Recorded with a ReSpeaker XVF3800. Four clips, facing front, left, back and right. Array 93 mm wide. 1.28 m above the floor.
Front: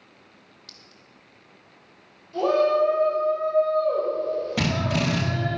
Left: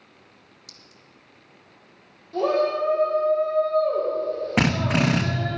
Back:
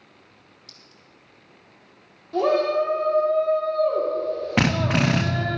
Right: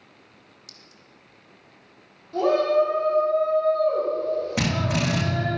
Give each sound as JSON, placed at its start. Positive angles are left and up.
{"t": 0.7, "sound": "a clink", "azimuth_deg": -30, "distance_m": 0.9}
{"t": 2.3, "sound": "a shout", "azimuth_deg": -175, "distance_m": 3.5}
{"t": 4.6, "sound": "a drill", "azimuth_deg": 140, "distance_m": 0.9}